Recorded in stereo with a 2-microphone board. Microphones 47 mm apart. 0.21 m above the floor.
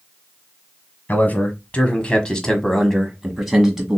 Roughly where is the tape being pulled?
No tape being pulled in this recording.